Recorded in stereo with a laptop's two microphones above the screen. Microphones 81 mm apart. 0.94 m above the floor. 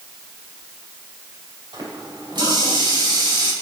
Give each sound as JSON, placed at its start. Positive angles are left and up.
{"t": 1.7, "sound": "a running tap", "side_deg": -75, "distance_m": 3.0}